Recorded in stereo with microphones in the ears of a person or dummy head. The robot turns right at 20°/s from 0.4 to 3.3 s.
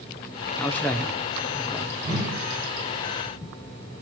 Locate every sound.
0.6 s a man speaking: 5° left (ahead or behind), 0.6 m; by 1.9 s 5° right (ahead or behind), 0.6 m
2.0 s a whoosh: 20° right (ahead or behind), 3 m; by 2.4 s 25° right (ahead or behind), 3 m